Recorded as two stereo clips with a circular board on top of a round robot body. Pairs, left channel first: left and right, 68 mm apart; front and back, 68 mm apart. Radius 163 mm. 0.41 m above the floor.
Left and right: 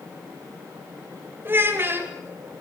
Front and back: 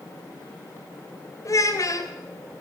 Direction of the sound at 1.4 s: 35° right.